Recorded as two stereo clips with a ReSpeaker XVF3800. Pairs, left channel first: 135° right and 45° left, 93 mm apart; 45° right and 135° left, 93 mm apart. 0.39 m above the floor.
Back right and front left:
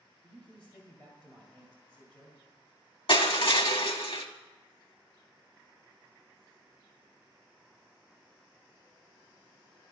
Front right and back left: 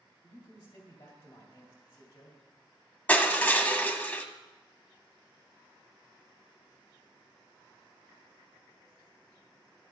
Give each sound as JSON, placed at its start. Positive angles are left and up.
{"t": 0.2, "sound": "a man speaking", "azimuth_deg": -55, "distance_m": 2.0}
{"t": 3.1, "sound": "crushing", "azimuth_deg": -115, "distance_m": 0.9}